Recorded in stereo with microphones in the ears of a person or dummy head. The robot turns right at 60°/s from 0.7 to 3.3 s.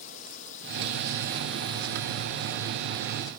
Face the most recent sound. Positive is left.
turn(degrees=-155)